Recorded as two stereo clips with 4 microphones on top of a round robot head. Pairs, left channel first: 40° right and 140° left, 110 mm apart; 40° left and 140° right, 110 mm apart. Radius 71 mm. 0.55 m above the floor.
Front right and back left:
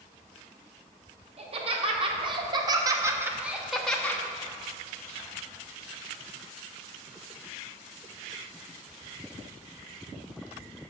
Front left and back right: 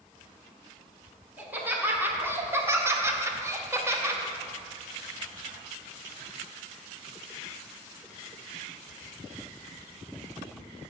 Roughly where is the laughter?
Behind left.